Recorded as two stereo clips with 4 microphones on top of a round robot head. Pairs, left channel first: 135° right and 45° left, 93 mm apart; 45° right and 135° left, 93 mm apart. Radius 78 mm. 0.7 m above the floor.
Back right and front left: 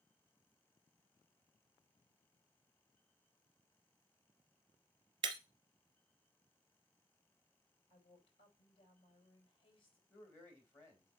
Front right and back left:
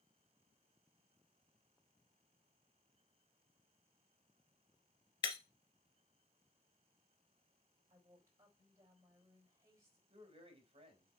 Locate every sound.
5.2 s breaking glass: straight ahead, 1.6 m
7.9 s a woman speaking: 165° right, 4 m
10.1 s a man speaking: 160° left, 3 m